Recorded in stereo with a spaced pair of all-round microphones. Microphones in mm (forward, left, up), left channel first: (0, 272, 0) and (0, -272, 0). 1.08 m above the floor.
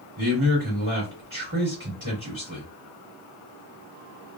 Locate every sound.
0.2 s a man speaking: 65° right (ahead or behind), 2 m